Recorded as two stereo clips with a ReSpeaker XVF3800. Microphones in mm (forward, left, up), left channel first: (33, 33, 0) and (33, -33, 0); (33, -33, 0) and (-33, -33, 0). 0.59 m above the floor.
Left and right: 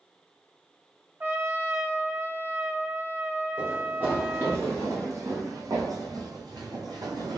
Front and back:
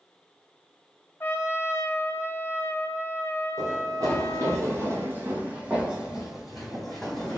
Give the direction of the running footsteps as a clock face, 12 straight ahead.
5 o'clock.